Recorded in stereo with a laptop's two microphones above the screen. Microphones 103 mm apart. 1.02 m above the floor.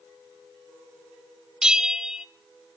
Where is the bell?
5° right (ahead or behind), 0.7 m.